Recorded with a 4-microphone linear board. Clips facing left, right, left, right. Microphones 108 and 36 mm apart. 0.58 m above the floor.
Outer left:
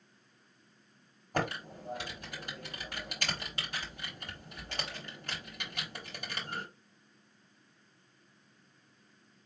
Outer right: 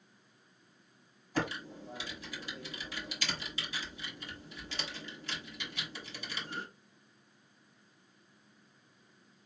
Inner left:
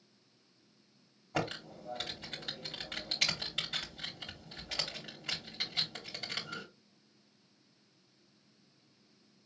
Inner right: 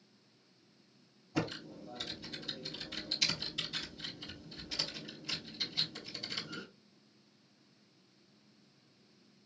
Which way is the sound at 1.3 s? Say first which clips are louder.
Outer left 1 dB, inner left 1 dB; 55° left (ahead or behind).